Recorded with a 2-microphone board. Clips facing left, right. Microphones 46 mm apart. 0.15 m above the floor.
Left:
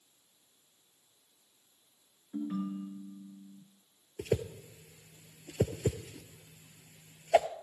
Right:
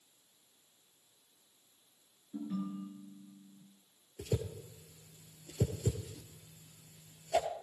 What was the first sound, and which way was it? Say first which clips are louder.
A ringtone: left 4 dB; 35° left (ahead or behind).